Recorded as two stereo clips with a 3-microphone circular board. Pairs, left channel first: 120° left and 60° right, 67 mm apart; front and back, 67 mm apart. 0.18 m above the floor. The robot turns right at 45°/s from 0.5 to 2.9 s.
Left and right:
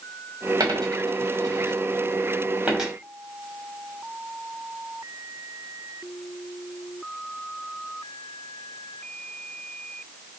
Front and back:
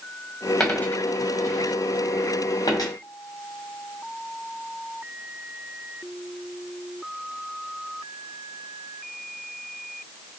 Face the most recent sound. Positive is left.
turn(degrees=30)